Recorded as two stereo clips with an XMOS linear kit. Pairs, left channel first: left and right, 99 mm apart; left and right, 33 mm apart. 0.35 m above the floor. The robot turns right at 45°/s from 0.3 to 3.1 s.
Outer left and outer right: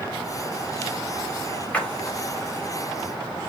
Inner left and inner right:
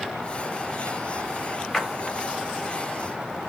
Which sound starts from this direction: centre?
A splash, at 1.7 s.